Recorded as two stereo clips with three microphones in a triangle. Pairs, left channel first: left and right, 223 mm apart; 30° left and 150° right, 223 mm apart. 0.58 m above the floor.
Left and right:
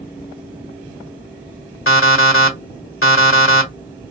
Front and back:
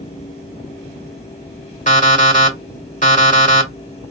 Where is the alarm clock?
80° left, 1.2 m.